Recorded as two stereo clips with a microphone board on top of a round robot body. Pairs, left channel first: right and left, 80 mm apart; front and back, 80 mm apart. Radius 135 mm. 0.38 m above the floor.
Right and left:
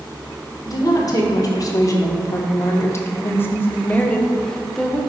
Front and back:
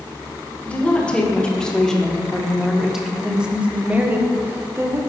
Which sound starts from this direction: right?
A woman speaking, at 0.7 s.